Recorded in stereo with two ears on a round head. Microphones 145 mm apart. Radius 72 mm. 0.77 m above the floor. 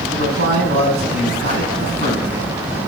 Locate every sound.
0.1 s a man speaking: 70° right (ahead or behind), 5 m